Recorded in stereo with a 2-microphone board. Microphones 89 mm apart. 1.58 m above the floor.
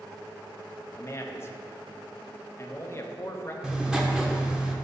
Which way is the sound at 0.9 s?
30° left (ahead or behind).